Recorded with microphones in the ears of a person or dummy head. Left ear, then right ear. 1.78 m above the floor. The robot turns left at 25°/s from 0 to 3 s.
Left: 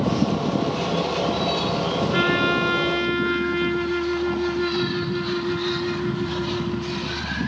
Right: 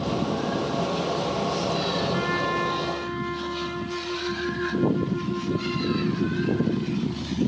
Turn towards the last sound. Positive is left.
turn(degrees=55)  # may be behind; listen again after turning